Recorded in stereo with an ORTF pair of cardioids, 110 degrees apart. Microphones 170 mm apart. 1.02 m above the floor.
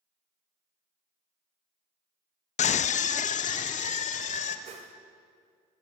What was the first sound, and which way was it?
A scream, 45° left.